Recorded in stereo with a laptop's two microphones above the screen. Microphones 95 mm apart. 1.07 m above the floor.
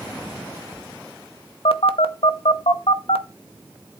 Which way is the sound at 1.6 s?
80° left.